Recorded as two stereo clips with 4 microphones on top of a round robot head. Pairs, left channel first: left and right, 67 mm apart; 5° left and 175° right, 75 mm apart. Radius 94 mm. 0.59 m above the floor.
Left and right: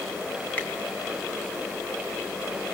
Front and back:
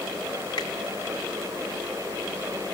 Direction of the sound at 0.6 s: 20° left.